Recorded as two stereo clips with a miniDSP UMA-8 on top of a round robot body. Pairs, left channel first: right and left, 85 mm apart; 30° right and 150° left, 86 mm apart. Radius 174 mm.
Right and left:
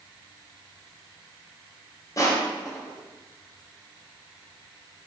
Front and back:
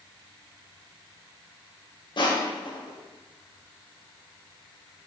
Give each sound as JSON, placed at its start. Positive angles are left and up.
{"t": 2.2, "sound": "crushing", "azimuth_deg": -45, "distance_m": 2.5}